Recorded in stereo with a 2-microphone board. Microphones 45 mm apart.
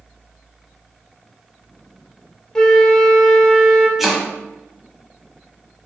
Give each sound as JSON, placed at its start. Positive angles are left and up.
{"t": 2.5, "sound": "a flute", "side_deg": 15, "distance_m": 0.6}
{"t": 4.0, "sound": "chopping", "side_deg": -5, "distance_m": 0.7}